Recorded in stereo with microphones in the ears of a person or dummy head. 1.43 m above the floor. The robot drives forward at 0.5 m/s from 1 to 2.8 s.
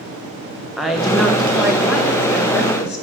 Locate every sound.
0.8 s a woman speaking: centre (ahead or behind), 1.4 m